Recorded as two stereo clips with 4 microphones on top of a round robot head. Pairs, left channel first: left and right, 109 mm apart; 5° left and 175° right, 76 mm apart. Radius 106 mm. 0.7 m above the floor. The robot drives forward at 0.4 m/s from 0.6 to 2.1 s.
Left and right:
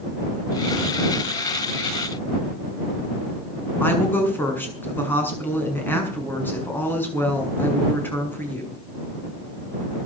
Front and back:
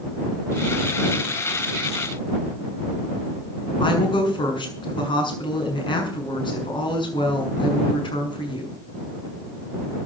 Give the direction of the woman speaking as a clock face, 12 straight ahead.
11 o'clock.